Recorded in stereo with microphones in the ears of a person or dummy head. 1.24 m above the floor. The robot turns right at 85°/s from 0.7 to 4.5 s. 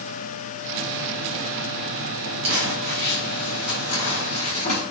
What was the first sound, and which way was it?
Crumpling, 35° right (ahead or behind).